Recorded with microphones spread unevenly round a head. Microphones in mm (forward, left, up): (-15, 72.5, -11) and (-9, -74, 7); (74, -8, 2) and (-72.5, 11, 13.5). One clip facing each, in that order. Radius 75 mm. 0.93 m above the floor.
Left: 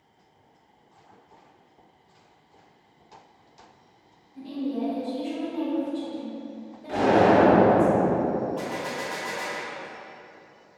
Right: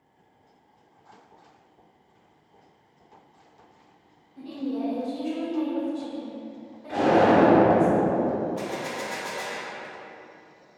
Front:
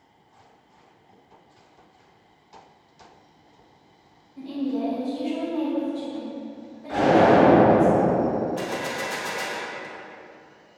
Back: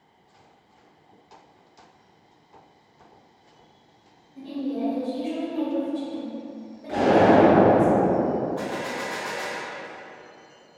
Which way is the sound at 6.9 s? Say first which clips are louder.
Even, even; 120° left.